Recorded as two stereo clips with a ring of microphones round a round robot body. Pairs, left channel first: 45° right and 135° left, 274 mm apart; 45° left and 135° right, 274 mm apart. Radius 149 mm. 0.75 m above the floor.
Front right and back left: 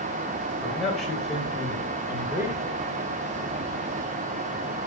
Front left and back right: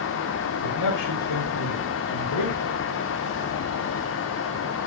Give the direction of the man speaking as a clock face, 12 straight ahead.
11 o'clock.